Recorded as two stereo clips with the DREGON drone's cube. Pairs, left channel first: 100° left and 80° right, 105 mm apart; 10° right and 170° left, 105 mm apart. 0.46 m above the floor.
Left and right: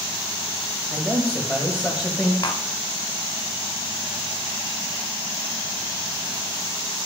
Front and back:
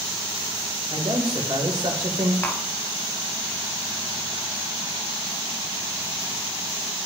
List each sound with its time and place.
0.9 s a man speaking: 155° right, 2 m
2.4 s tapping: 60° left, 0.8 m